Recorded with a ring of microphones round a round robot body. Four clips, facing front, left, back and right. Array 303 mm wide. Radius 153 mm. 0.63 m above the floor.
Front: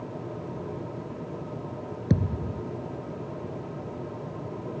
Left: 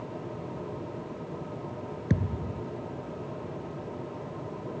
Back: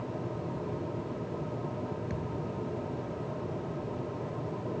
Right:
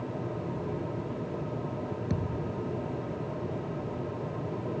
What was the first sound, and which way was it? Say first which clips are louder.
A thud: left 1 dB, front 7 dB; 20° left.